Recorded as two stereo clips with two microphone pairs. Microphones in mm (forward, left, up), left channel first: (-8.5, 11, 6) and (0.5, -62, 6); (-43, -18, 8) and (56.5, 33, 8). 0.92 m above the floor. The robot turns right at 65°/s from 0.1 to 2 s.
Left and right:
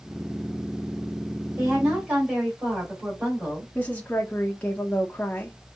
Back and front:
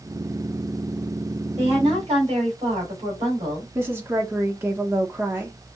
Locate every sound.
1.6 s a woman speaking: 45° right, 3 m; by 3.6 s 15° right, 3 m
3.8 s a woman speaking: 55° left, 0.7 m